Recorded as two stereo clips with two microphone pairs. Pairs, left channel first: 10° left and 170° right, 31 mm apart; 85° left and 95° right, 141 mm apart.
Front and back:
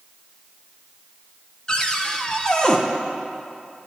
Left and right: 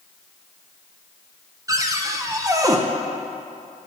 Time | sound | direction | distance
1.7 | a cupboard door | 45° right | 0.6 m